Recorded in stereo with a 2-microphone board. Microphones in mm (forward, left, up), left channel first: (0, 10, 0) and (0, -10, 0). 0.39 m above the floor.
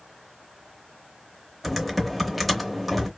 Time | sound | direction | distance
1.6 | typing on a keyboard | 5° right (ahead or behind) | 0.6 m